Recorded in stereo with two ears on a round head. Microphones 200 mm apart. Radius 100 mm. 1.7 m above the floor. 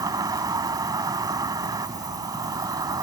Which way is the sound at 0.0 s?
15° right (ahead or behind).